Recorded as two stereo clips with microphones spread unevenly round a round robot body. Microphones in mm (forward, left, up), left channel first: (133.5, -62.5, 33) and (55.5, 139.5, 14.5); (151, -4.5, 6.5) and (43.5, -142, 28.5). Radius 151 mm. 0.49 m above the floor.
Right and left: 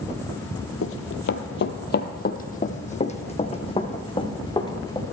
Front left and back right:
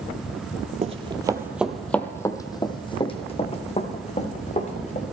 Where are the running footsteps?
85° right, 0.9 m; by 5.0 s 5° left, 2.5 m.